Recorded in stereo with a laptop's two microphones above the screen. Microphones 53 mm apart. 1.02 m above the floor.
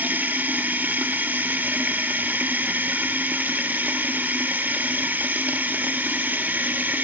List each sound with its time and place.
0.0 s running water: 35° right (ahead or behind), 1.9 m